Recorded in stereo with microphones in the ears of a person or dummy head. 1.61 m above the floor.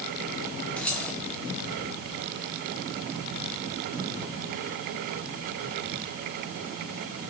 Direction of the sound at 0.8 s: 5° left (ahead or behind).